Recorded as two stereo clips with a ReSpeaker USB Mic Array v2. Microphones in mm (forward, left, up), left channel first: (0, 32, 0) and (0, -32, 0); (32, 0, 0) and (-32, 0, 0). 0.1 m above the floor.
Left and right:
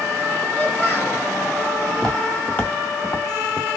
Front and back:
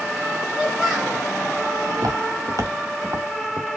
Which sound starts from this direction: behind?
Footsteps, at 1.9 s.